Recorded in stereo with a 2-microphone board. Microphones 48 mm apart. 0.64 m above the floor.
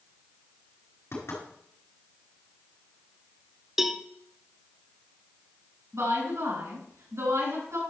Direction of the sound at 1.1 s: 65° left (ahead or behind).